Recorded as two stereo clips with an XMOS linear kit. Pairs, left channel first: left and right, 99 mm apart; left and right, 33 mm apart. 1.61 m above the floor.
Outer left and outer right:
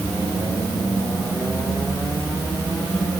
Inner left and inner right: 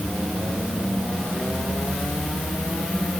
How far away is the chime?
I don't hear a chime.